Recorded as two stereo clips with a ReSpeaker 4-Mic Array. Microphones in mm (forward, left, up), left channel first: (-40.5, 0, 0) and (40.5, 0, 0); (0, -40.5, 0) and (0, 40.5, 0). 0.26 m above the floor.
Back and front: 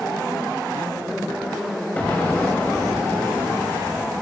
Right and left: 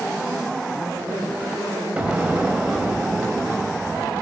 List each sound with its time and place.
2.0 s an explosion: 135° left, 0.6 m